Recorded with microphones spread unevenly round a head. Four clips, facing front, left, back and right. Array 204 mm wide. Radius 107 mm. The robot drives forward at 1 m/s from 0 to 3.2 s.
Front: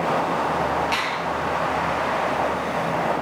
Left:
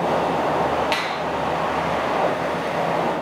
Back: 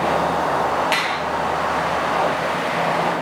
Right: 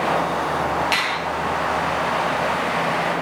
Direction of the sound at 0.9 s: 170° left.